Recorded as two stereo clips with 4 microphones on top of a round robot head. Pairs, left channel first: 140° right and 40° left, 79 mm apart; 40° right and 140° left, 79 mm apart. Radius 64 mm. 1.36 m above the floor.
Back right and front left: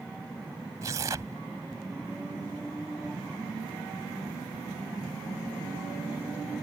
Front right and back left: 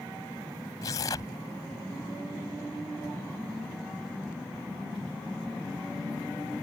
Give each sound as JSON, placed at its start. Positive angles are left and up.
{"t": 0.8, "sound": "tearing paper", "azimuth_deg": 0}